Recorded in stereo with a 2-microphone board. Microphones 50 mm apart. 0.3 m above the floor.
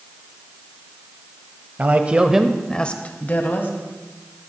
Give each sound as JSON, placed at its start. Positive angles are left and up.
{"t": 1.8, "sound": "a man speaking", "side_deg": -35, "distance_m": 1.2}